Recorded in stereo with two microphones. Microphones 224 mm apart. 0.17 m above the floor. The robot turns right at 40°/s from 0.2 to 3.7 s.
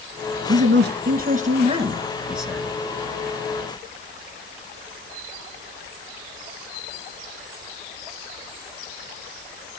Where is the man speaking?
80° right, 2.5 m; by 2.7 s 10° left, 2.5 m.